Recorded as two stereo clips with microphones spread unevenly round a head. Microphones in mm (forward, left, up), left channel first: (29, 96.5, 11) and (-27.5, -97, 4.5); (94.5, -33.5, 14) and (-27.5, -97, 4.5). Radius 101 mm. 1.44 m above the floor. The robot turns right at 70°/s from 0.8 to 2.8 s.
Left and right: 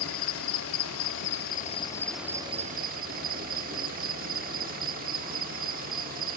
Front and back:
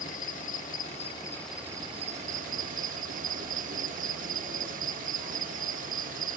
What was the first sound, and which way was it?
An insect, 70° left.